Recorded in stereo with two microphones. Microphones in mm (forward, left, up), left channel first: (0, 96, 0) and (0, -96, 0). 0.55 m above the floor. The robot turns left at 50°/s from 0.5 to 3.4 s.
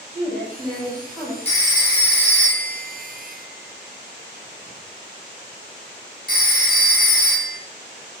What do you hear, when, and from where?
0.1 s a woman speaking: 145° right, 1.7 m; by 1.4 s 175° left, 1.7 m
1.4 s a phone ringing: 30° left (ahead or behind), 0.9 m; by 7.6 s 45° left (ahead or behind), 0.9 m